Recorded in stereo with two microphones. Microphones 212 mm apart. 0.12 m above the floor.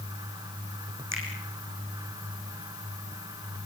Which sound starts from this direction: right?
A finger snap, at 1.1 s.